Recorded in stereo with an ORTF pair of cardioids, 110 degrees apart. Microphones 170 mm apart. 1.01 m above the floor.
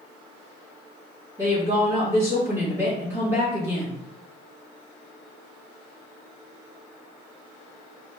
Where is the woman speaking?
15° right, 1.4 m.